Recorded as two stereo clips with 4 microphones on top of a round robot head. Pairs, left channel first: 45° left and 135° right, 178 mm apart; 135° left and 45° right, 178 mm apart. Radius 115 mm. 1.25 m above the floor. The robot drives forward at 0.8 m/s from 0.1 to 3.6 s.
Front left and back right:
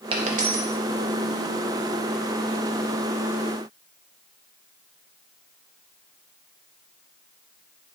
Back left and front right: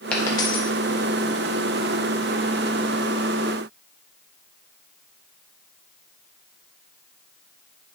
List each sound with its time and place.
0.1 s a dropped coin: 145° right, 0.5 m; by 0.7 s 170° right, 0.8 m